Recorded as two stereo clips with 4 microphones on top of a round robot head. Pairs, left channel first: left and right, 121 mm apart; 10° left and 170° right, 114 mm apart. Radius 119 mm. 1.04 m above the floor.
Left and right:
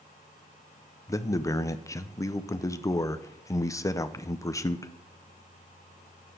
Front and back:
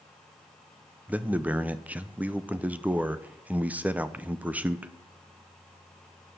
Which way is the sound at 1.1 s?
125° left.